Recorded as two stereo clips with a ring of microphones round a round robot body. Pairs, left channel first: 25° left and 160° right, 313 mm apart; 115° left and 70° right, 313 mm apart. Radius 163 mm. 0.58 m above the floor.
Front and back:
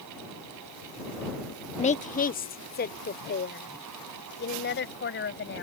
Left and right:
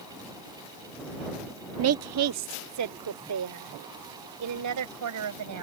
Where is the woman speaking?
40° right; by 5.6 s 35° right.